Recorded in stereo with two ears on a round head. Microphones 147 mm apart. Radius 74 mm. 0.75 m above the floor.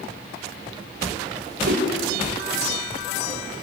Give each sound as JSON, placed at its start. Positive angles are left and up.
{"t": 1.6, "sound": "a whoosh", "side_deg": -65, "distance_m": 4.5}